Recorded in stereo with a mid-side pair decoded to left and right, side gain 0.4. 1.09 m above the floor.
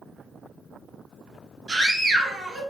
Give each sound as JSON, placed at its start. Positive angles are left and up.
{"t": 1.7, "sound": "a scream", "azimuth_deg": -55, "distance_m": 1.4}